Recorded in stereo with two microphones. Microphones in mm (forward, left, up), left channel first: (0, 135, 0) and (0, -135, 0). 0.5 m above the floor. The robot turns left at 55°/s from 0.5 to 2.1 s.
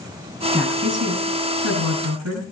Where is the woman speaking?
15° right, 5 m; by 2.4 s 105° right, 5 m.